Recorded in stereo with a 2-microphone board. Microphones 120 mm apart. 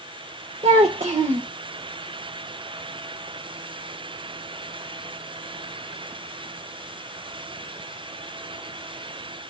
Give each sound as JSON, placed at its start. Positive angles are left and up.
{"t": 0.6, "sound": "a child speaking", "side_deg": -65, "distance_m": 1.0}